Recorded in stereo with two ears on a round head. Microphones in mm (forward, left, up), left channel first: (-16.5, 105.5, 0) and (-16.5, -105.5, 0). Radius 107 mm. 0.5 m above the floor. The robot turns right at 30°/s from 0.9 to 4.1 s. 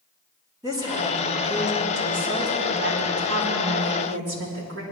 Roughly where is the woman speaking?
Behind.